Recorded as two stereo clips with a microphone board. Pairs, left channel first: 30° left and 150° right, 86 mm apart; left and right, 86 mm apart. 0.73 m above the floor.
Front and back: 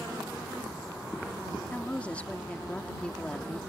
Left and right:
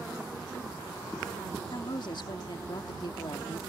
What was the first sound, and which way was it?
A woman speaking, 105° left.